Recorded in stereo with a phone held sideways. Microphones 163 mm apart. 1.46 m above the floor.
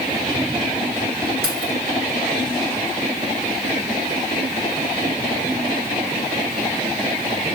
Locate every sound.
1.4 s keys jangling: 80° right, 2.5 m